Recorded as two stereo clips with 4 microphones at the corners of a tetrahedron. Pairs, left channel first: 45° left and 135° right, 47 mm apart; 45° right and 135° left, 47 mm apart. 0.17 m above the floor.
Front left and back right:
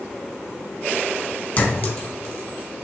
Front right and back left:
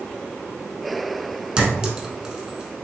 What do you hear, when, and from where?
1.6 s a clink: 70° left, 0.9 m